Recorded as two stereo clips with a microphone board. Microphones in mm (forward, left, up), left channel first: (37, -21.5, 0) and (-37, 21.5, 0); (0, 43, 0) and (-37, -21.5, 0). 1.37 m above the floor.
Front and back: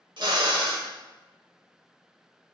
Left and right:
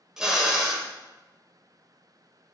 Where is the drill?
160° left, 2.0 m.